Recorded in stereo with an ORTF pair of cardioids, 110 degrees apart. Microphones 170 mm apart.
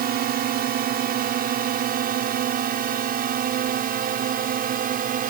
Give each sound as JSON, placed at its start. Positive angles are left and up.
{"t": 0.0, "sound": "a drone", "azimuth_deg": -65}